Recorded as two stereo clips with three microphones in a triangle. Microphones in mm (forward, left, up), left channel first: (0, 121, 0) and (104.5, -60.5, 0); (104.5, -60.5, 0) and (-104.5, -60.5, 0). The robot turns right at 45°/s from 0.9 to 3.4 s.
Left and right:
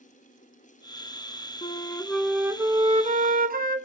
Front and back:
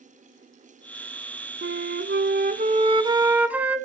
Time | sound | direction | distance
1.6 | a flute | straight behind | 1.0 m